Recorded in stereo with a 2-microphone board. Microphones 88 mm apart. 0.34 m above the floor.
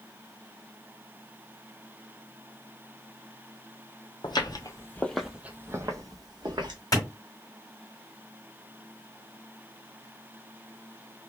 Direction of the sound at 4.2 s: 60° left (ahead or behind).